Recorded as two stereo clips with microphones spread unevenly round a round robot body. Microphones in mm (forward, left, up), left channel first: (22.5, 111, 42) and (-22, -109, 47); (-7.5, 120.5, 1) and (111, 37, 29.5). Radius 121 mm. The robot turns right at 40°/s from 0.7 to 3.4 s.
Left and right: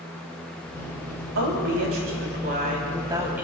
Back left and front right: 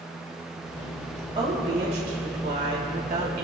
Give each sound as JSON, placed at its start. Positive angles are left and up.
{"t": 1.4, "sound": "a woman speaking", "azimuth_deg": -100, "distance_m": 3.0}